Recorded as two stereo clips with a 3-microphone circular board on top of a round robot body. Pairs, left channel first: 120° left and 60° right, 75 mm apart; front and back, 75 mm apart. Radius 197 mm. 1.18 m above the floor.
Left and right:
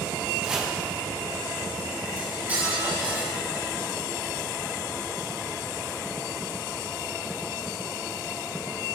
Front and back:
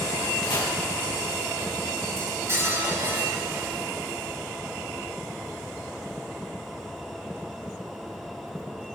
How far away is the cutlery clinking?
About 5.5 m.